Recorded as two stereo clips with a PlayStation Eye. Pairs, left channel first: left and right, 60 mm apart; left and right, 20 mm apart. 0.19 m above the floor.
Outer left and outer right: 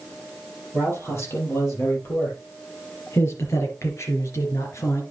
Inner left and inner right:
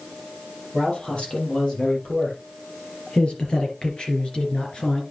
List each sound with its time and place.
0.7 s a man speaking: 50° left (ahead or behind), 6.5 m